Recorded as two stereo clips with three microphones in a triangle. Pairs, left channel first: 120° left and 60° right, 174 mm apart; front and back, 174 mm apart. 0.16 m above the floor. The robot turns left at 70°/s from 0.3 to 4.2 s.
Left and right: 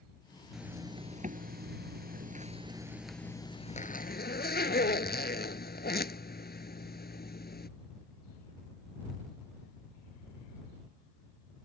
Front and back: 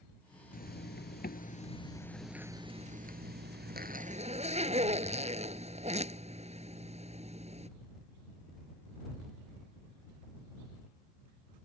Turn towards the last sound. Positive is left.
turn(degrees=130)